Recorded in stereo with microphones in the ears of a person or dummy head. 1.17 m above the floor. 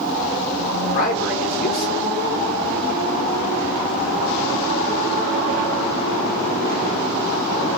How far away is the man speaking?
About 1.3 m.